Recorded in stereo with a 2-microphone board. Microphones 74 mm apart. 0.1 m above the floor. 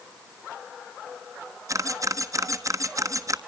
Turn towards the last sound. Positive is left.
turn(degrees=-50)  # may be behind; listen again after turning